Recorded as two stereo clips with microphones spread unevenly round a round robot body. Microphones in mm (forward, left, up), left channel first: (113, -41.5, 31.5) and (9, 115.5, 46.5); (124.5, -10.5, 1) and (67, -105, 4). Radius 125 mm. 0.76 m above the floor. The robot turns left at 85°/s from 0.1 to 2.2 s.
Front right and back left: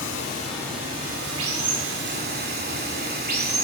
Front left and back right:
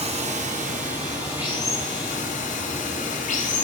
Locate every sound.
0.0 s running water: 95° right, 2.5 m; by 3.6 s 90° left, 2.5 m